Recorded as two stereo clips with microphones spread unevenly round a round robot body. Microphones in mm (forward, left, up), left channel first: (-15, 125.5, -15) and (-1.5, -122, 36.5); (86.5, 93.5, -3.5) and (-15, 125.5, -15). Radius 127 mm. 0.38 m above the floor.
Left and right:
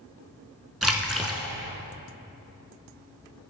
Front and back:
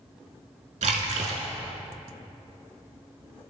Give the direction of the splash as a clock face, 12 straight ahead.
6 o'clock.